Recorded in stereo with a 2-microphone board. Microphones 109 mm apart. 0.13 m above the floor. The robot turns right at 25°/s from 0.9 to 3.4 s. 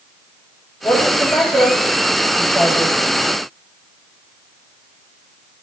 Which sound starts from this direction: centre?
A woman speaking, at 0.8 s.